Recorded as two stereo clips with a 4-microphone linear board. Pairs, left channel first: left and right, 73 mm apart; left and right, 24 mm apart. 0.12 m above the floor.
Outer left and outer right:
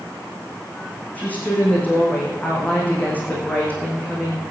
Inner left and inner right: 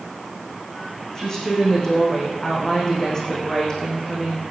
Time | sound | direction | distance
1.1 | a woman speaking | 20° left (ahead or behind) | 6.5 m